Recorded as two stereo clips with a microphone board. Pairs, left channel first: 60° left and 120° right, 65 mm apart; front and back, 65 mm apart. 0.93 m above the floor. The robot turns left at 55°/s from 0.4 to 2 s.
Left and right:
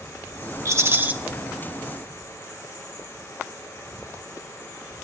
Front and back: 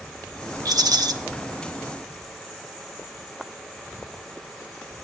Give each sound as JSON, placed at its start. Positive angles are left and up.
{"t": 0.7, "sound": "a rattle", "azimuth_deg": -160, "distance_m": 1.6}